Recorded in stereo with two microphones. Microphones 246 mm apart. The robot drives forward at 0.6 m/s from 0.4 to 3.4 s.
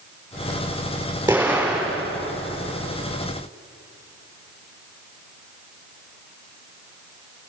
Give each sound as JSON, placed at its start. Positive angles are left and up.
{"t": 1.3, "sound": "an explosion", "side_deg": -10, "distance_m": 5.5}